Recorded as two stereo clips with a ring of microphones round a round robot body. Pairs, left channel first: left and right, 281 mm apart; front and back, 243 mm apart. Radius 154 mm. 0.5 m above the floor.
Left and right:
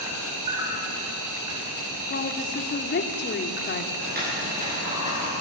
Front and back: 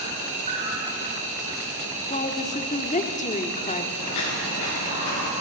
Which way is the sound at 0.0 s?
115° right.